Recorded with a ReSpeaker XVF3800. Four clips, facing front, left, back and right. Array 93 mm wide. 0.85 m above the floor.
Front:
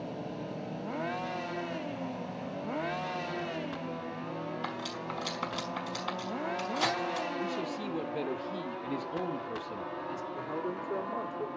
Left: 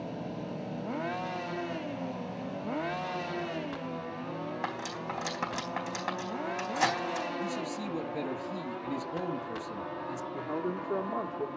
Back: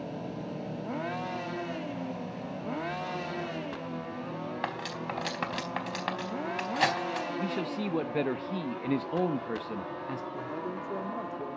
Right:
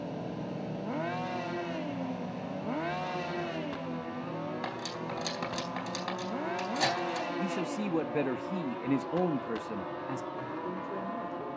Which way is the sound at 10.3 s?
110° left.